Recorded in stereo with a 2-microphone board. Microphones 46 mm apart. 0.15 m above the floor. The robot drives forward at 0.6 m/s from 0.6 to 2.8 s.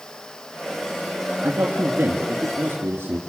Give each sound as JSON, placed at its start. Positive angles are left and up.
{"t": 1.4, "sound": "a man speaking", "side_deg": -55, "distance_m": 2.5}